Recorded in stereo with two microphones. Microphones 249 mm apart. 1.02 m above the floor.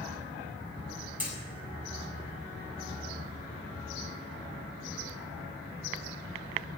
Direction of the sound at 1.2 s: 5° right (ahead or behind).